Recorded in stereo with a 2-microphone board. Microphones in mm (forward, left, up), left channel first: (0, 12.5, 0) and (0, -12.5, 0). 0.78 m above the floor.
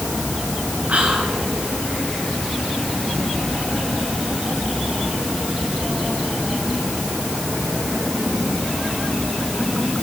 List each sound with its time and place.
0.9 s whispering: 60° right (ahead or behind), 9.5 m